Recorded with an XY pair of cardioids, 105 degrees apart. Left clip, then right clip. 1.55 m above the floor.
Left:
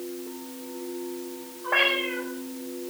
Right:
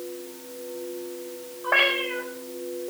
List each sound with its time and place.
1.6 s a cat meowing: 45° right, 4 m